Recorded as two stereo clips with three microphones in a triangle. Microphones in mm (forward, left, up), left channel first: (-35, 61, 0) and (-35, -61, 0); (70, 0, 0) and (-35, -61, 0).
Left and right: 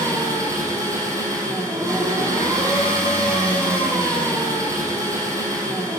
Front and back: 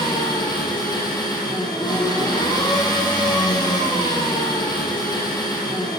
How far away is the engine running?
About 4.5 m.